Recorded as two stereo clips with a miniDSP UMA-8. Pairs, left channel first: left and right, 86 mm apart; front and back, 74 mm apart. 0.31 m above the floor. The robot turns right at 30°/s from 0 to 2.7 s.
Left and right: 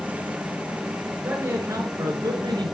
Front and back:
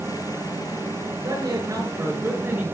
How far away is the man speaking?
About 4.5 m.